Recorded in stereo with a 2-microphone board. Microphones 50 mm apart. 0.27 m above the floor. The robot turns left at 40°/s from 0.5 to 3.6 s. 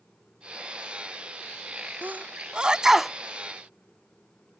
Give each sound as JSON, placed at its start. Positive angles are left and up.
{"t": 2.0, "sound": "a sneeze", "side_deg": -35}